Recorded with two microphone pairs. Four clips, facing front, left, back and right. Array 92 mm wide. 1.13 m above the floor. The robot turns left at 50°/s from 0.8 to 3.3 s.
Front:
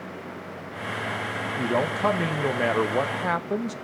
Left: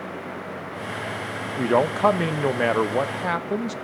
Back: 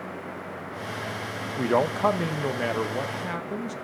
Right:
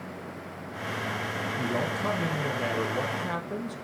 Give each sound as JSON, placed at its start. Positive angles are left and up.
{"t": 1.6, "sound": "a man speaking", "azimuth_deg": 130, "distance_m": 1.1}